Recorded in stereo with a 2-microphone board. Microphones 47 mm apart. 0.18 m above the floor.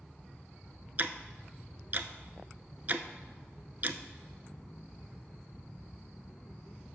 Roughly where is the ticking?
Right.